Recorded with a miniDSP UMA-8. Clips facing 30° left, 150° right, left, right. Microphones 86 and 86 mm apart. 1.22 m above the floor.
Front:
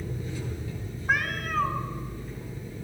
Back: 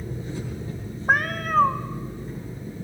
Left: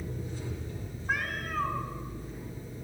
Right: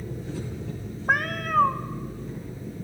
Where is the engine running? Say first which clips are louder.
Back 2 dB, right 4 dB; 90° right, 9 m.